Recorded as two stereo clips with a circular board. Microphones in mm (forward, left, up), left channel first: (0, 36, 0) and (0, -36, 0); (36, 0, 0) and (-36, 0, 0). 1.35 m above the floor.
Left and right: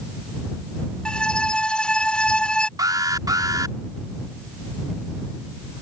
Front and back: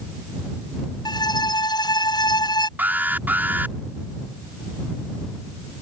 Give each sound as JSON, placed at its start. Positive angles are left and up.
{"t": 1.1, "sound": "a violin", "azimuth_deg": 10}
{"t": 2.8, "sound": "an alarm", "azimuth_deg": -115}